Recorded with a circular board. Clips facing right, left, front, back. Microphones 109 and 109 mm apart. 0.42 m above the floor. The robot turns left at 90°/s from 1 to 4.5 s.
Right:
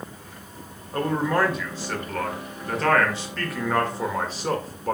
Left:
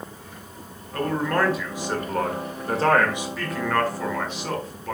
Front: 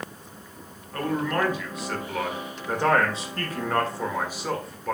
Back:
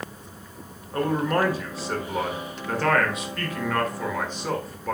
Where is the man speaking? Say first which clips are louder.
Right 1 dB, back 3 dB; 135° right, 1.5 m; by 5.0 s 90° right, 1.5 m.